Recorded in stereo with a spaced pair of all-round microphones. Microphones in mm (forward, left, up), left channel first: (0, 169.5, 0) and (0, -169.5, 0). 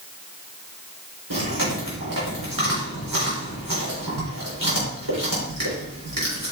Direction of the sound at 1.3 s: 80° right.